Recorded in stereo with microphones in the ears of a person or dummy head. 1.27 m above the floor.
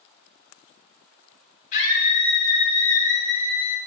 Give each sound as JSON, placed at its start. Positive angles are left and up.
{"t": 1.7, "sound": "a scream", "side_deg": 40, "distance_m": 2.5}